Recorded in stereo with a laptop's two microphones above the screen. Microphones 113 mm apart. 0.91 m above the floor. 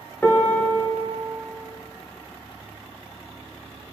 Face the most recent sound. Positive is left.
turn(degrees=15)  # may be behind; listen again after turning